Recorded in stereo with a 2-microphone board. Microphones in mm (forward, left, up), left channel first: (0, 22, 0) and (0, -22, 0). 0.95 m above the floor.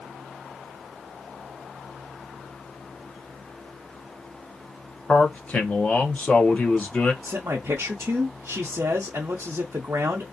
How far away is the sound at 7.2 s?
About 0.5 m.